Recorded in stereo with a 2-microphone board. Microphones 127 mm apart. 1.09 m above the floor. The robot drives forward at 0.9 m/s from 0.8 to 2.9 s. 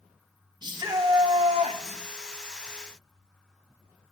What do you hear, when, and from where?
0.6 s a shout: 35° right (ahead or behind), 1.7 m; by 2.0 s 65° right (ahead or behind), 1.1 m